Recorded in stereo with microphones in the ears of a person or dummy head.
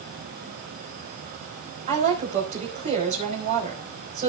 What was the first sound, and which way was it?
A woman speaking, 35° right (ahead or behind).